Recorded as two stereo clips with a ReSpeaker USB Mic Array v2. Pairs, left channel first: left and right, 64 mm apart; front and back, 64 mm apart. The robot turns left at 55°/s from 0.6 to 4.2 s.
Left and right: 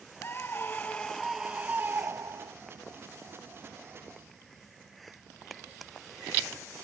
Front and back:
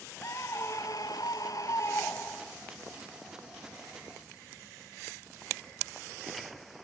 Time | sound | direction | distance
0.2 | a scream | 35° left | ?